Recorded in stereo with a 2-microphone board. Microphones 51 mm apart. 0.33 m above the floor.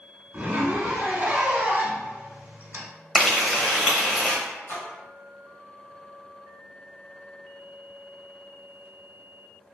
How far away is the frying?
About 0.7 m.